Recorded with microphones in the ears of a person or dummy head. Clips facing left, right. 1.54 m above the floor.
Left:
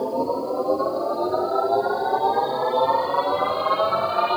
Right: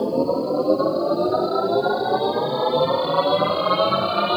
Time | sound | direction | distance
0.0 | a machine running | 40° right (ahead or behind) | 0.8 m